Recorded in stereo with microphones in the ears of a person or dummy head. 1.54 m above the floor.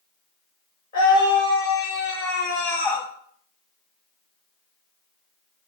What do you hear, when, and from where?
0.9 s a scream: 35° left (ahead or behind), 5.5 m; by 3.1 s 15° left (ahead or behind), 3.5 m